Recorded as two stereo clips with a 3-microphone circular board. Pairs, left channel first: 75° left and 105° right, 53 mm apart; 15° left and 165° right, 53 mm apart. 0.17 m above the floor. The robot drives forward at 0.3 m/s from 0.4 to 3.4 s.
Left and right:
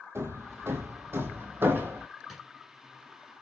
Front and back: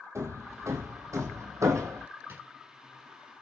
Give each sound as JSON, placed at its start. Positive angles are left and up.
{"t": 0.1, "sound": "hammering", "azimuth_deg": -140, "distance_m": 1.1}
{"t": 2.3, "sound": "a drawer", "azimuth_deg": 165, "distance_m": 1.3}